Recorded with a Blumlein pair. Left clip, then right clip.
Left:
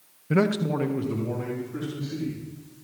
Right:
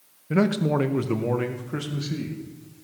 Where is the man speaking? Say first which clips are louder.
Right 1 dB; 10° left, 1.0 m; by 2.4 s 50° right, 3 m.